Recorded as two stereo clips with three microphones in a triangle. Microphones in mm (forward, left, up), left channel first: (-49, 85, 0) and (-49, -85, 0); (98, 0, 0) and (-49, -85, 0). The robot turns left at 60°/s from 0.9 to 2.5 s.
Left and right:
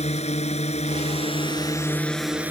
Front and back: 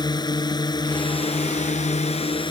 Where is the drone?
80° left; by 2.5 s 15° right.